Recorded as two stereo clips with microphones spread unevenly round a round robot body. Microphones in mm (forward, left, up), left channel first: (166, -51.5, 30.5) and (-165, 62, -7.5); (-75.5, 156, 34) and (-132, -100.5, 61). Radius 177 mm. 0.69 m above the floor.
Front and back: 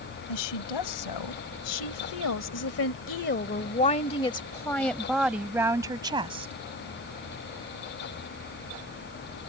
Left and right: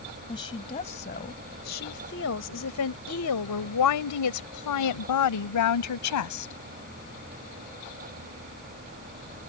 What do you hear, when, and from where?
0.3 s a woman speaking: straight ahead; by 6.5 s 85° left